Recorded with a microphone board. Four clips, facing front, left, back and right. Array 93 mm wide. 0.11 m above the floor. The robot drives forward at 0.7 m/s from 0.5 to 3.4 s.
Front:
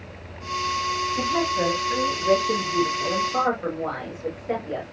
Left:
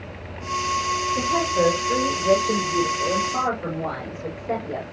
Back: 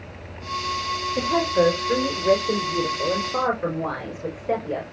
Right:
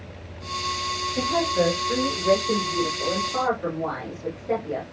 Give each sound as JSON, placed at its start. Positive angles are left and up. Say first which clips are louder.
{"t": 1.2, "sound": "a woman speaking", "louder": "right 1 dB, back 6 dB", "azimuth_deg": -175, "distance_m": 4.5}